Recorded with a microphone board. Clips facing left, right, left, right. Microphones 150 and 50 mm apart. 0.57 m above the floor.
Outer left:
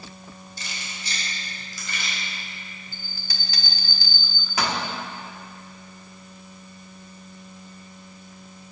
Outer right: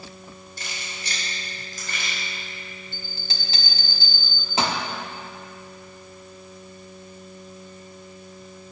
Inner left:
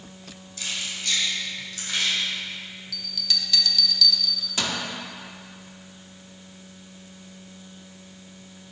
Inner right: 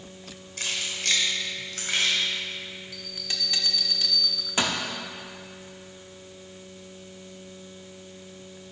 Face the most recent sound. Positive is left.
turn(degrees=-30)  # may be behind; listen again after turning